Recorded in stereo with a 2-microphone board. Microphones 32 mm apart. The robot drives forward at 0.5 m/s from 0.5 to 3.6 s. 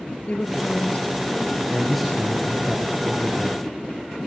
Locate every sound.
0.3 s a woman speaking: 40° left (ahead or behind), 2 m; by 1.6 s 35° left (ahead or behind), 2.5 m
1.7 s a man speaking: centre (ahead or behind), 5.5 m